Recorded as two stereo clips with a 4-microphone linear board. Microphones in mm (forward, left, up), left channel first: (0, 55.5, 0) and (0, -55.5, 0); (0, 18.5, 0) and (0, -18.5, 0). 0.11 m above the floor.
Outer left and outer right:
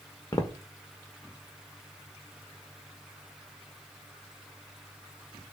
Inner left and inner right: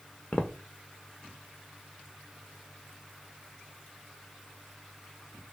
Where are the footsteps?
35° left (ahead or behind), 0.5 m.